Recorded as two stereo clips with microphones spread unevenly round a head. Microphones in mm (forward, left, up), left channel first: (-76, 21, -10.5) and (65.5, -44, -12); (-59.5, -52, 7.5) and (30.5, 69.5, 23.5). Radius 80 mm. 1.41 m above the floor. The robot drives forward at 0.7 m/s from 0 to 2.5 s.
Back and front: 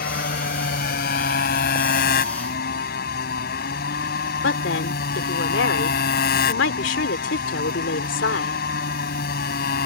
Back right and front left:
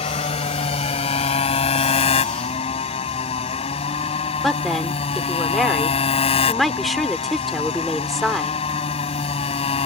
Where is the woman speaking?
145° left.